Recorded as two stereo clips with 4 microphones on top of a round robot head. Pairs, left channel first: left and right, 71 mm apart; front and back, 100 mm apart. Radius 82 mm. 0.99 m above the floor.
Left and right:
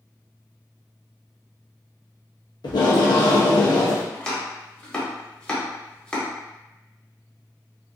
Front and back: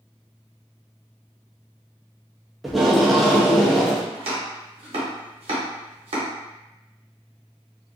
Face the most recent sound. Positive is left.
turn(degrees=165)